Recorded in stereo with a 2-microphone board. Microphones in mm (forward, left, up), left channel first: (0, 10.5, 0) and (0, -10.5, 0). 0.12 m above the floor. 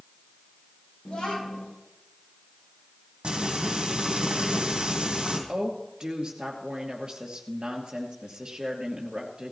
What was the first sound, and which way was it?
A child speaking, 50° left (ahead or behind).